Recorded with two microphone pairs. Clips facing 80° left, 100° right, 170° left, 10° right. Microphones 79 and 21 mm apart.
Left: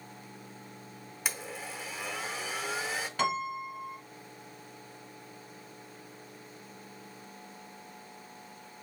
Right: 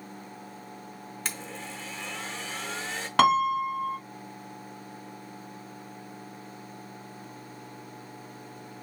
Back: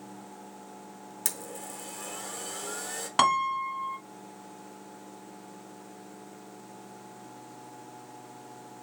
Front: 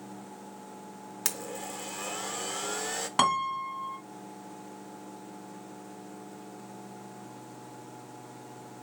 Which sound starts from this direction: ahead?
A blender, at 1.2 s.